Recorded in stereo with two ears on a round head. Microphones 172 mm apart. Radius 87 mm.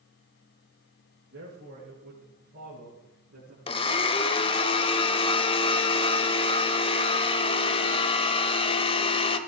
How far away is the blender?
About 1.1 m.